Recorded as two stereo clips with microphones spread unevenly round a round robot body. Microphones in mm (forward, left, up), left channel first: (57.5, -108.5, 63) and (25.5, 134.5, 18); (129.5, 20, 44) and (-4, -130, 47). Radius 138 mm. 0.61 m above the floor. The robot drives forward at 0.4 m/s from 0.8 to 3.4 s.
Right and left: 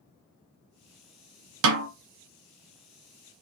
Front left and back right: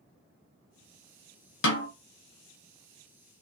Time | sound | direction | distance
1.6 | a snare drum | 75° left | 0.6 m